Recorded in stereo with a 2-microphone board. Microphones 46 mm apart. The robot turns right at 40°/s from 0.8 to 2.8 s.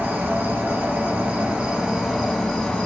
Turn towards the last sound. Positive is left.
turn(degrees=20)